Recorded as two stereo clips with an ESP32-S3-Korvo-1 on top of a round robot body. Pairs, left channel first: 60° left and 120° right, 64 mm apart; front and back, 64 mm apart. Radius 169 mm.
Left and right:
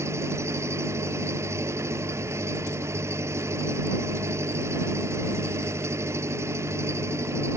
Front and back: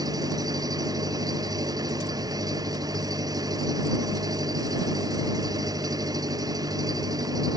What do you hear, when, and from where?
0.0 s an engine running: 165° right